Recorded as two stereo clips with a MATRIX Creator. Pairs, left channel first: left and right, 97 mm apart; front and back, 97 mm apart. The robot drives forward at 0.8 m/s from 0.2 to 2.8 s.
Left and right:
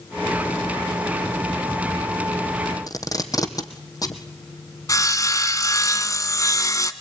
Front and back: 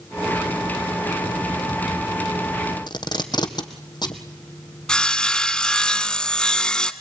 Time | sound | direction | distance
2.9 | tape being pulled | 40° left | 2.5 m
4.9 | sawing | 75° left | 1.4 m